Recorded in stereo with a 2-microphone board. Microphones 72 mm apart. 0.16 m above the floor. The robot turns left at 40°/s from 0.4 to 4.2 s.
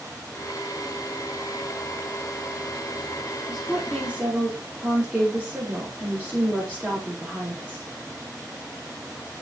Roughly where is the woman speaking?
Centre.